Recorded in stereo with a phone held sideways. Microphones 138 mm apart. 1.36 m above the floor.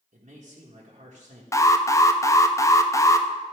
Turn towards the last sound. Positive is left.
turn(degrees=20)  # may be behind; listen again after turning